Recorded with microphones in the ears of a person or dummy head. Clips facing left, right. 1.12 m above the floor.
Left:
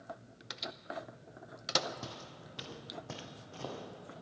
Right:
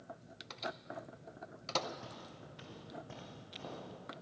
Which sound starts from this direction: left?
Footsteps, at 2.0 s.